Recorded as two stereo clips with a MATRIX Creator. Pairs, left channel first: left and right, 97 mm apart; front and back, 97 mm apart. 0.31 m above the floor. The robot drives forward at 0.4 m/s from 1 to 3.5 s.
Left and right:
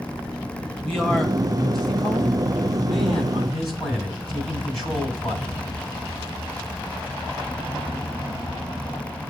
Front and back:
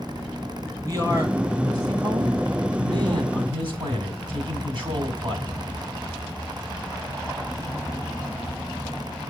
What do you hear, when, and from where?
0.8 s a man speaking: 175° left, 1.9 m